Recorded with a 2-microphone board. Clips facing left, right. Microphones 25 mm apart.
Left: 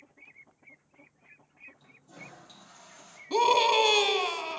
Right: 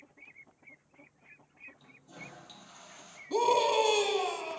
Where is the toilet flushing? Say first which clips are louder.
Even; 20° right (ahead or behind), 3.5 m.